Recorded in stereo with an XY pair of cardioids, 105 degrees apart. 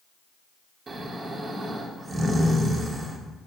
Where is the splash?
I don't hear a splash.